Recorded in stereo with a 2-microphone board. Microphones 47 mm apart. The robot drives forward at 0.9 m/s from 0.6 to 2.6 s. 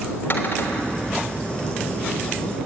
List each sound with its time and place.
0.3 s a cupboard door: 50° left (ahead or behind), 3 m; by 1.0 s 45° left (ahead or behind), 3.5 m